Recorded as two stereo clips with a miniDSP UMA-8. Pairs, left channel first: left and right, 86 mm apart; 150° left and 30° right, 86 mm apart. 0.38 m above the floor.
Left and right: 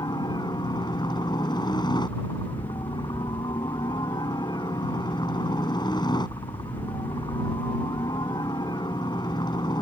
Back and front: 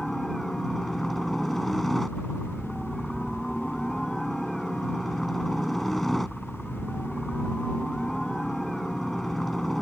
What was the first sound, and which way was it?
A helicopter, 65° left.